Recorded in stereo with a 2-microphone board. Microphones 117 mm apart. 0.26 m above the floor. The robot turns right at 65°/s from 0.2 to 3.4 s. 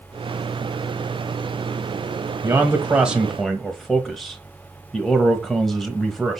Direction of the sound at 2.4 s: 25° right (ahead or behind).